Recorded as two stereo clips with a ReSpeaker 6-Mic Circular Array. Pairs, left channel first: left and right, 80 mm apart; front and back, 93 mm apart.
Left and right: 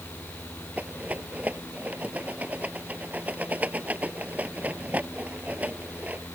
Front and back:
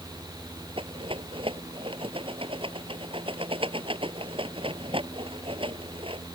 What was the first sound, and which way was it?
A rattle, 160° right.